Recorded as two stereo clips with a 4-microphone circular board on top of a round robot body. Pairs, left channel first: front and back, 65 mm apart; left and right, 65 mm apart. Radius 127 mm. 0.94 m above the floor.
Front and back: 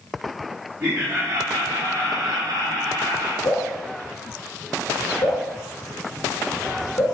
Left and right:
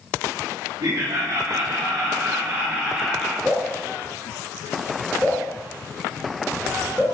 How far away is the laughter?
About 2 m.